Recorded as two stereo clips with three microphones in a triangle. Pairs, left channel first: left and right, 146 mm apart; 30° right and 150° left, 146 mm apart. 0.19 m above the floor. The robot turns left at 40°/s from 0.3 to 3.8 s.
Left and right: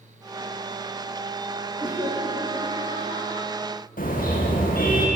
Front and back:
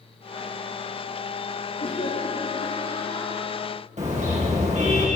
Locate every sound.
1.8 s laughter: 25° right, 7.5 m; by 3.5 s 95° right, 7.5 m
4.0 s a car horn: 115° left, 9.5 m